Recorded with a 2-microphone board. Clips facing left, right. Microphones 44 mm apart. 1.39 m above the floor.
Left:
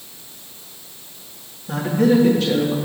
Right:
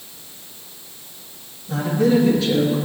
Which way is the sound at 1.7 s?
60° left (ahead or behind).